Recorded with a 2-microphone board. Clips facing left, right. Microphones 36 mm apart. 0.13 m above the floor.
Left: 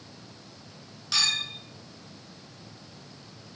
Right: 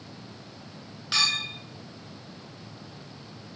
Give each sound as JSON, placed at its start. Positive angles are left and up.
{"t": 1.1, "sound": "a clink", "side_deg": -25, "distance_m": 1.0}